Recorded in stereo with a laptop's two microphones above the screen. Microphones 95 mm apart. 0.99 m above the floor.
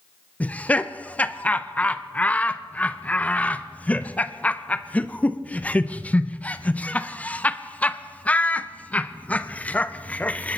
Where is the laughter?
15° left (ahead or behind), 0.5 m.